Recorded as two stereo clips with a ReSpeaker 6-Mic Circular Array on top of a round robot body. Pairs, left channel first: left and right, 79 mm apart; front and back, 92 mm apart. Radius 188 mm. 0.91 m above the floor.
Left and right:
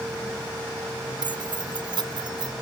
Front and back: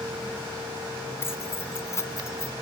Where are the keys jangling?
65° right; by 2.5 s 60° right.